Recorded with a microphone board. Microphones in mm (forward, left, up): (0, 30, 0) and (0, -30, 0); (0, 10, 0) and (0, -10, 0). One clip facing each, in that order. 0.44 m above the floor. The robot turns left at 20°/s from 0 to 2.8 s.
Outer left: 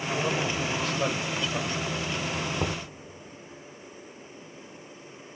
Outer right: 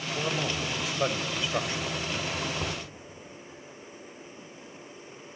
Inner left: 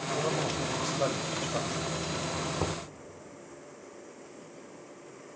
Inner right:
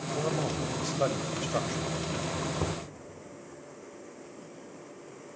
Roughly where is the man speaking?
Ahead.